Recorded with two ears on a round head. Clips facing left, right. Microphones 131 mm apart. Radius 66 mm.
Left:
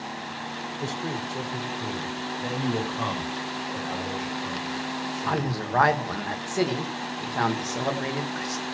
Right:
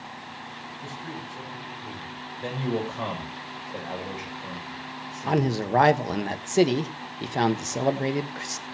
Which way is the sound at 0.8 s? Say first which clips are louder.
Left 7 dB; 80° left.